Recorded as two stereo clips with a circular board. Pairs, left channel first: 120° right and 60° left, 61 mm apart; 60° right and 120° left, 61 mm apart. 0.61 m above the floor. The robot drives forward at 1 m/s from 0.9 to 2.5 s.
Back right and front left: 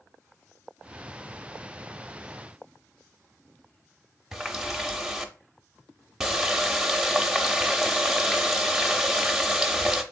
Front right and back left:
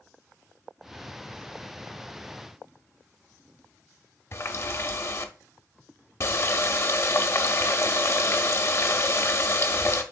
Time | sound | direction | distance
4.3 | a running tap | 25° right | 0.6 m